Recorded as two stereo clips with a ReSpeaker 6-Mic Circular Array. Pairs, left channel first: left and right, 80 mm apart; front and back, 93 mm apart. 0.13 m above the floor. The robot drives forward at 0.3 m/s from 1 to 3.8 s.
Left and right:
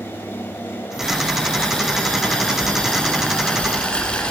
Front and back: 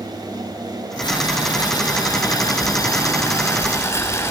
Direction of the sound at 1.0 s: 10° left.